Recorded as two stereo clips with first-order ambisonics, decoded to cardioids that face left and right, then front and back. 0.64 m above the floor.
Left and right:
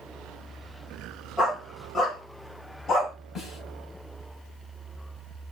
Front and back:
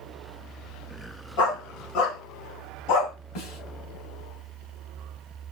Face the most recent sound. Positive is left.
turn(degrees=10)